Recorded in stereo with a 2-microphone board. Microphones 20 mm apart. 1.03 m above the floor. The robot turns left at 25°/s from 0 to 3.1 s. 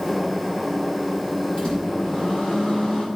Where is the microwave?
135° left, 5.5 m; by 3.0 s 95° left, 5.5 m.